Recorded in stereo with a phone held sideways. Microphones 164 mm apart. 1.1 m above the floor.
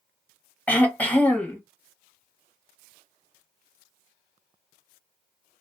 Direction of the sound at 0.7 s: 10° left (ahead or behind).